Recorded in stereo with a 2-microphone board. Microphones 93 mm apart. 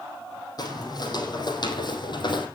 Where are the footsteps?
45° left (ahead or behind), 3.5 m; by 2.5 s 55° left (ahead or behind), 3 m.